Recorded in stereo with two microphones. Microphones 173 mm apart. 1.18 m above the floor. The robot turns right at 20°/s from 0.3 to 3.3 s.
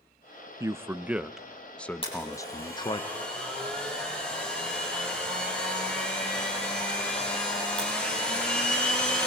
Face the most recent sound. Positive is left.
turn(degrees=5)  # may be behind; listen again after turning